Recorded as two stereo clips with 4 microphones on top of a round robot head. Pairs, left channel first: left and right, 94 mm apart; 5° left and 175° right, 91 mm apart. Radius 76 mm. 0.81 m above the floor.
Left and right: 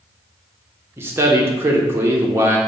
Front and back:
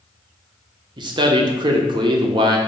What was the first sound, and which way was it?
A man speaking, 150° right.